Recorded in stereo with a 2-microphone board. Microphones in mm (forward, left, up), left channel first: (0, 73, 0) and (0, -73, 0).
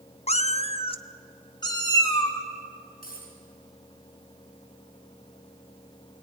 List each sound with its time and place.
0.3 s a cat meowing: 45° left (ahead or behind), 0.5 m; by 2.4 s 25° left (ahead or behind), 2.5 m
3.0 s a dropped coin: 80° left, 7 m